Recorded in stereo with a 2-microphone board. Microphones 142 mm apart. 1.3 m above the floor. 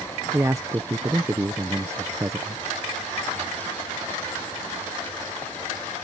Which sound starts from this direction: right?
A man speaking, at 0.3 s.